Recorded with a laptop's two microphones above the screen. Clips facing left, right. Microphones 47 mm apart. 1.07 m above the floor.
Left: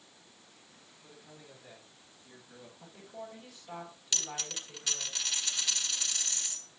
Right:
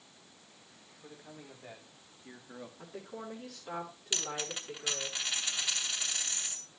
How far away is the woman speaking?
About 3.5 m.